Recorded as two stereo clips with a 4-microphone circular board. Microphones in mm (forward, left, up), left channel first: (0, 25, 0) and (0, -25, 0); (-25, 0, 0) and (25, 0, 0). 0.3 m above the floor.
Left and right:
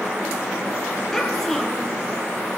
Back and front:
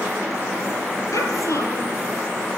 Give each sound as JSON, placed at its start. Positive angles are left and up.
{"t": 1.1, "sound": "a child speaking", "azimuth_deg": 170, "distance_m": 4.5}